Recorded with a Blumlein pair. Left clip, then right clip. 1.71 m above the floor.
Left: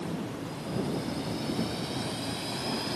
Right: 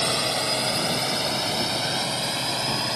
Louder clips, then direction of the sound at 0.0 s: Right 14 dB; 45° right.